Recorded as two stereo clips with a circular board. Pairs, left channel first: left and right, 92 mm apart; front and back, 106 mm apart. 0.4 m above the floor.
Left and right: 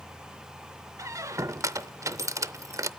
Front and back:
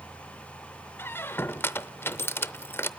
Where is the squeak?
55° right, 0.5 m.